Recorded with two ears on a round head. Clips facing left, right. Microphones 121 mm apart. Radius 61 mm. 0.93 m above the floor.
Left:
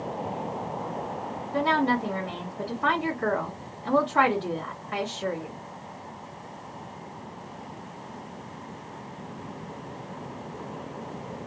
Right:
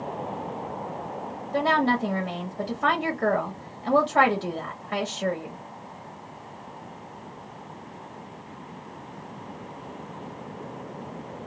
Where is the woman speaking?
45° right (ahead or behind), 1.2 m.